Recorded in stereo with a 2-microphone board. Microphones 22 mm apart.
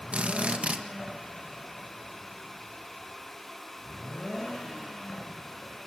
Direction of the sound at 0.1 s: 65° right (ahead or behind).